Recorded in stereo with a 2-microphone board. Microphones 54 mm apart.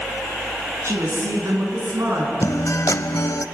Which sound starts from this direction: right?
A woman speaking, at 0.8 s.